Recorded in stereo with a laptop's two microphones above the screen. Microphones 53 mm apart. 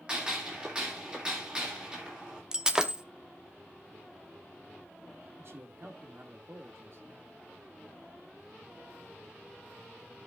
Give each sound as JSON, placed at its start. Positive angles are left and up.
{"t": 0.1, "sound": "a gunshot", "side_deg": -20, "distance_m": 2.5}
{"t": 2.5, "sound": "breaking glass", "side_deg": -15, "distance_m": 0.9}
{"t": 5.4, "sound": "a man speaking", "side_deg": -55, "distance_m": 2.5}